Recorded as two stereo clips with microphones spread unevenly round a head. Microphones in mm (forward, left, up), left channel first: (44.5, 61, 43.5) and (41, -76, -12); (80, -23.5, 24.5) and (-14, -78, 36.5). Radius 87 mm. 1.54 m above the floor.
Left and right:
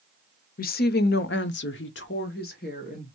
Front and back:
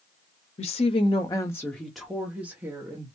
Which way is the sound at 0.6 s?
65° left.